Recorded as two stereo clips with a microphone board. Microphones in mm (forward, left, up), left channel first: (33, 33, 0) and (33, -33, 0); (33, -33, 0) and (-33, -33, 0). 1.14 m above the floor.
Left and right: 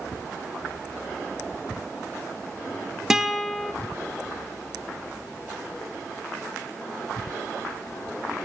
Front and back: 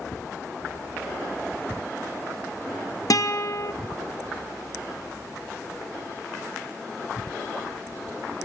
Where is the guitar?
10° right, 0.6 m.